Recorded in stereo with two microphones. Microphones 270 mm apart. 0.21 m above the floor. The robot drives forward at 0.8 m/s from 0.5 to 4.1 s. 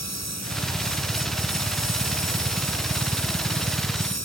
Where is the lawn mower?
70° right (ahead or behind).